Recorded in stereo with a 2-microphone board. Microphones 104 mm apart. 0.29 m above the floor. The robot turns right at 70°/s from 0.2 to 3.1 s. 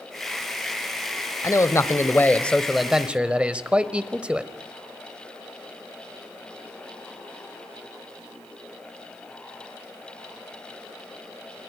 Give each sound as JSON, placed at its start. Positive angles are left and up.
{"t": 1.4, "sound": "a man speaking", "side_deg": 30, "distance_m": 1.1}